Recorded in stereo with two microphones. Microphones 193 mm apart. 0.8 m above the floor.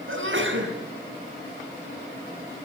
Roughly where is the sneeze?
Right.